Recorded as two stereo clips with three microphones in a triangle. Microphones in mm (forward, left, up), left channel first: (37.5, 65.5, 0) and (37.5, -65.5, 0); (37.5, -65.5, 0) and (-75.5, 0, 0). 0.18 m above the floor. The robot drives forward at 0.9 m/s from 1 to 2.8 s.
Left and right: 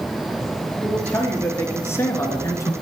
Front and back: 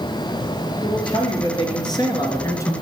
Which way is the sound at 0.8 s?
15° left.